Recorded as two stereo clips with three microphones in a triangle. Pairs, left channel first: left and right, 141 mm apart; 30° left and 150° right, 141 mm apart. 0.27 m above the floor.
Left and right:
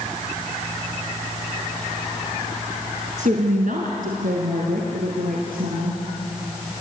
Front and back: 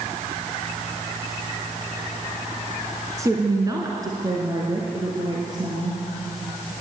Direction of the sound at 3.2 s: 85° right.